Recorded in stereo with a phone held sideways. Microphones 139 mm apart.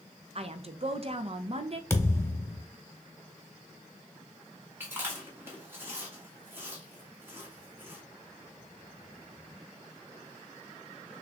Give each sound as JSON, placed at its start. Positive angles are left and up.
{"t": 0.3, "sound": "a woman speaking", "side_deg": -45, "distance_m": 0.5}
{"t": 1.9, "sound": "a thud", "side_deg": 20, "distance_m": 0.9}
{"t": 4.8, "sound": "chewing", "side_deg": -15, "distance_m": 1.5}